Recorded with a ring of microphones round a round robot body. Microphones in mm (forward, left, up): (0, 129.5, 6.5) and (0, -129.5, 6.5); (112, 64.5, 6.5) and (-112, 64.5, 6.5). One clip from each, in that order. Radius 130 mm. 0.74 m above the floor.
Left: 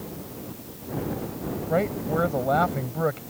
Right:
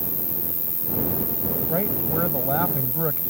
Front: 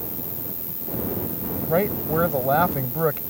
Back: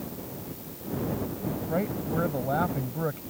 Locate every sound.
0.0 s an insect: 65° right
1.7 s a man speaking: 30° left